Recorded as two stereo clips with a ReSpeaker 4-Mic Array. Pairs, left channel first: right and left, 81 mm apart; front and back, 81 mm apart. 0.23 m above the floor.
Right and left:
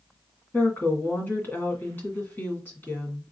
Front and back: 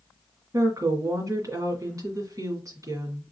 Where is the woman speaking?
150° right, 2 m.